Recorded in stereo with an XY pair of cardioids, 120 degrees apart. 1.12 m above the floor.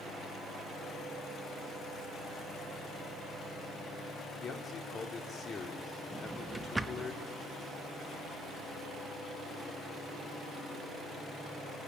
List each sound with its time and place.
4.4 s a man speaking: 35° left, 3.5 m
6.1 s a drawer: 10° right, 0.8 m